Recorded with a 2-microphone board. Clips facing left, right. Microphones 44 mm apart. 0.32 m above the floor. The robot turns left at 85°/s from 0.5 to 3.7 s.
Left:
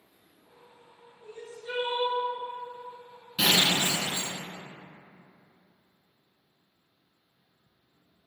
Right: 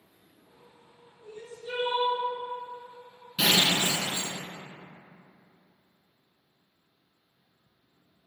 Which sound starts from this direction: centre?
Breaking glass, at 3.4 s.